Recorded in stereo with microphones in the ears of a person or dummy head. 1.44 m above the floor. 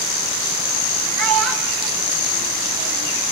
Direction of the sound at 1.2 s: 80° right.